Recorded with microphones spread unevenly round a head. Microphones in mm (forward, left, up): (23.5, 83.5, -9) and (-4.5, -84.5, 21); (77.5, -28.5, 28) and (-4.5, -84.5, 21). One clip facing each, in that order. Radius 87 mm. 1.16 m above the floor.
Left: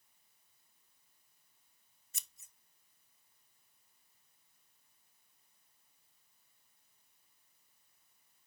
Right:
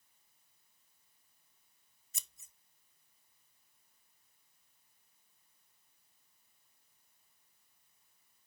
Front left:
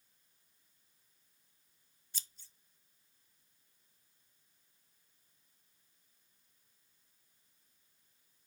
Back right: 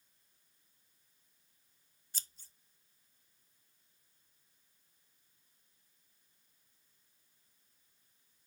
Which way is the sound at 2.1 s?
100° right.